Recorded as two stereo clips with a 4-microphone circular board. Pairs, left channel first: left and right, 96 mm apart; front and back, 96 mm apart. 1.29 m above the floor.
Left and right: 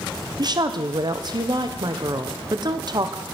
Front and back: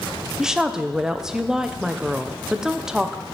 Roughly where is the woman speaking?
Right.